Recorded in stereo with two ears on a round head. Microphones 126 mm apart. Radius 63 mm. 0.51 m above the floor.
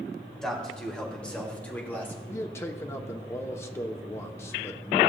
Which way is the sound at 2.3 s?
20° left (ahead or behind).